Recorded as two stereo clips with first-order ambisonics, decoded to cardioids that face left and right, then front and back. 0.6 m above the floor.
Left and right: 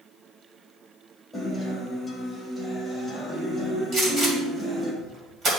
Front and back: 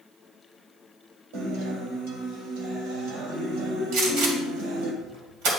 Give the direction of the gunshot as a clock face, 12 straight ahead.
5 o'clock.